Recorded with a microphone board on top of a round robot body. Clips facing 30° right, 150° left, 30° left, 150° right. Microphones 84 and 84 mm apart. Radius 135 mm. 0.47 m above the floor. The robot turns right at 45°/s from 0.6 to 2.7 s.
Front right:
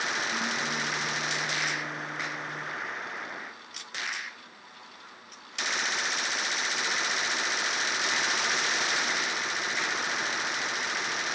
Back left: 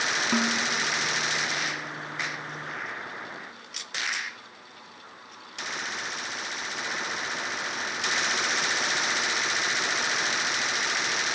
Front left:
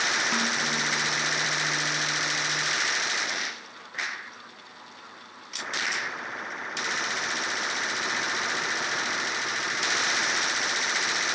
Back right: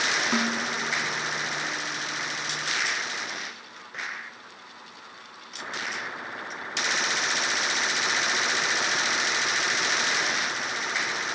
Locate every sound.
0.3 s a snare drum: 130° left, 3 m